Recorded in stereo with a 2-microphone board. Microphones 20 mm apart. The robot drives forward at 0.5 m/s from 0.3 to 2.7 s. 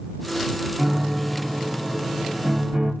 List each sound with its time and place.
0.8 s a piano: 45° right (ahead or behind), 1.2 m; by 2.9 s 50° right (ahead or behind), 1.2 m